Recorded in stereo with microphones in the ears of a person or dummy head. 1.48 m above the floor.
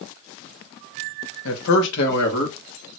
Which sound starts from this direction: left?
A man speaking, at 1.4 s.